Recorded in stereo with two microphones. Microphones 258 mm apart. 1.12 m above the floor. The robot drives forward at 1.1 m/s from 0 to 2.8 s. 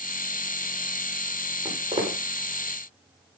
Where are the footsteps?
20° right (ahead or behind), 5.5 m.